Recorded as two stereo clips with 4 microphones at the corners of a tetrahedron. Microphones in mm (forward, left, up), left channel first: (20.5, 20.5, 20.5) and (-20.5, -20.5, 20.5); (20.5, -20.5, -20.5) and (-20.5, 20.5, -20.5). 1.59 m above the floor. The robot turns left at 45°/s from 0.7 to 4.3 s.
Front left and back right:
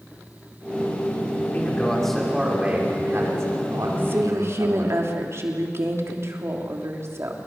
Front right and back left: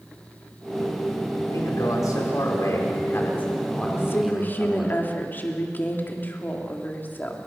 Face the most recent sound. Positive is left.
turn(degrees=-100)